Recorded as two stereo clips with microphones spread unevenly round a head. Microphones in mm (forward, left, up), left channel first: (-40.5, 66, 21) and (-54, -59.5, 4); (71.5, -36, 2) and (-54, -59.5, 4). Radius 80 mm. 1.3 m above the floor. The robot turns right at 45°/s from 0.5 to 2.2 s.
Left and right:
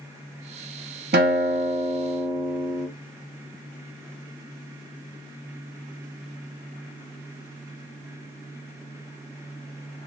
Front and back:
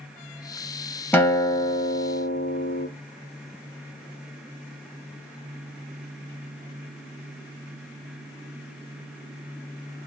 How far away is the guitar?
About 0.7 m.